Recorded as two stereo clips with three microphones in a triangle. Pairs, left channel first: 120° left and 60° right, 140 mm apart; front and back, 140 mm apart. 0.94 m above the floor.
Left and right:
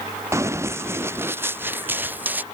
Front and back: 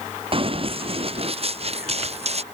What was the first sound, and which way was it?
Running footsteps, 130° right.